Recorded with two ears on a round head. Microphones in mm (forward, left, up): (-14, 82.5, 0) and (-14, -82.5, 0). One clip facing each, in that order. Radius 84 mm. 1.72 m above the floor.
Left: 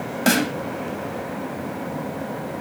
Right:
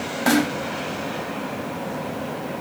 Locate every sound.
0.3 s a snare drum: 35° left (ahead or behind), 1.8 m